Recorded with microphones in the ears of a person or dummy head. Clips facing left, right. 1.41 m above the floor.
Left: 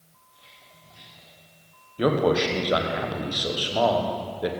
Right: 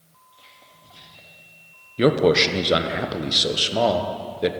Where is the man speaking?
30° right (ahead or behind), 0.8 m.